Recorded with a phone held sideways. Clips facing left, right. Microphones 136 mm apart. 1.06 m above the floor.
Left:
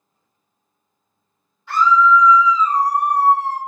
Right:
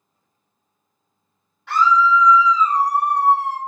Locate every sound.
1.7 s a scream: 70° right (ahead or behind), 1.8 m